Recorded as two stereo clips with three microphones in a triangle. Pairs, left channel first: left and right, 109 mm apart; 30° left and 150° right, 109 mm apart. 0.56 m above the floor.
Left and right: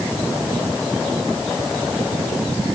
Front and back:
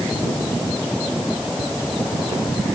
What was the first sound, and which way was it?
Only background noise.